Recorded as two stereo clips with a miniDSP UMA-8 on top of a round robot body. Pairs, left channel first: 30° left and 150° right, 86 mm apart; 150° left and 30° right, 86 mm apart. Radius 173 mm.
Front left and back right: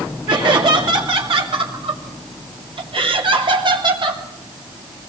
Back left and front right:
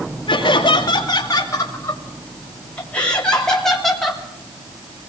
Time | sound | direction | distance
0.3 | laughter | 175° right | 3 m